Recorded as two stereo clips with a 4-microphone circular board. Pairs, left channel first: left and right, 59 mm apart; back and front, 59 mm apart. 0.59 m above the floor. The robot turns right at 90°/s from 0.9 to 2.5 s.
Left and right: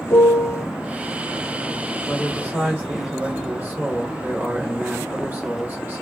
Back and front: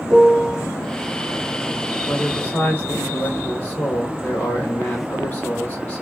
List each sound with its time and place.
0.1 s a piano: 75° left, 0.7 m
2.0 s a man speaking: 170° right, 1.5 m; by 6.0 s 130° right, 1.5 m